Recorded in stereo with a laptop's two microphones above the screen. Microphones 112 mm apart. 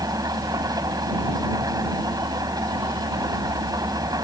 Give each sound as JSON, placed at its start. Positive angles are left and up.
{"t": 0.0, "sound": "an engine running", "side_deg": -35}